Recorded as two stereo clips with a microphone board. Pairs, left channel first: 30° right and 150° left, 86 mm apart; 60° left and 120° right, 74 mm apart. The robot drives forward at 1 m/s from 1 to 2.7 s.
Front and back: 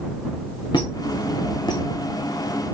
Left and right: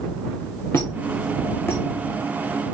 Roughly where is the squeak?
Ahead.